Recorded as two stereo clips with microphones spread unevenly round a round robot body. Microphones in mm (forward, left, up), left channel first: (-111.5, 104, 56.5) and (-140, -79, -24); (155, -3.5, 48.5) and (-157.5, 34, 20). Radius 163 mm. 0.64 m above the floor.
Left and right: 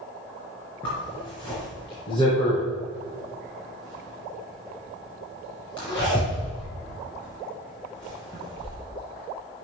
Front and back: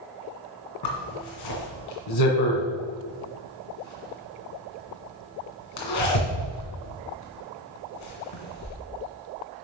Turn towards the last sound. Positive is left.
turn(degrees=10)